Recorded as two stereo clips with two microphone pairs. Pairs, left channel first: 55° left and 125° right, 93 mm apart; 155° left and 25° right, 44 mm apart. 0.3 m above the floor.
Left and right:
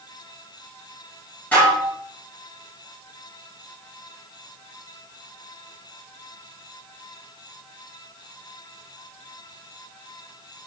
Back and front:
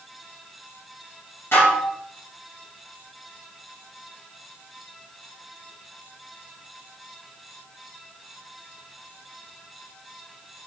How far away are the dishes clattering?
About 3 m.